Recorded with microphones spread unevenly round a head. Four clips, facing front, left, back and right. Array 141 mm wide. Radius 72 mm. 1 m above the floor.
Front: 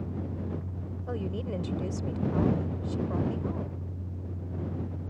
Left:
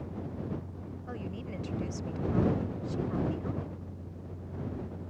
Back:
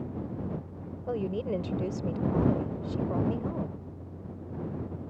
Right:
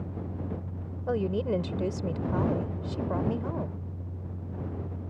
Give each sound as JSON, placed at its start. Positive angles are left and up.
{"t": 0.0, "sound": "a fan", "azimuth_deg": -45}
{"t": 1.1, "sound": "a woman speaking", "azimuth_deg": -115}